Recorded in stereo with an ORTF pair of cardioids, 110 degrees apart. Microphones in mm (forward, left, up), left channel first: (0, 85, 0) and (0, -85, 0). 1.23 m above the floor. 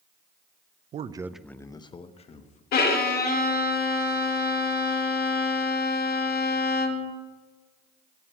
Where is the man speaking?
45° right, 0.6 m; by 2.6 s 45° left, 1.7 m.